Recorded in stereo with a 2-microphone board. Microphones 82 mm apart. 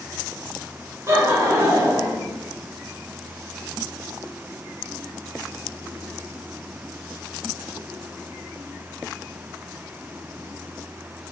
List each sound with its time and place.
1.1 s laughter: 35° right (ahead or behind), 1.0 m